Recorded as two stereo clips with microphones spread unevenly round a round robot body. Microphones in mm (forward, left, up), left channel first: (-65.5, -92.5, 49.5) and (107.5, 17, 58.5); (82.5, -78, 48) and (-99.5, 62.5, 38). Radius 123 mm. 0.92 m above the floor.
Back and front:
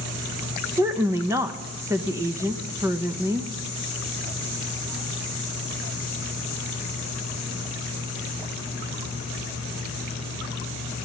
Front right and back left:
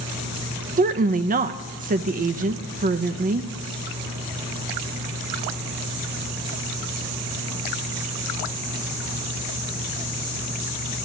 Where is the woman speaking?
105° left, 0.6 m.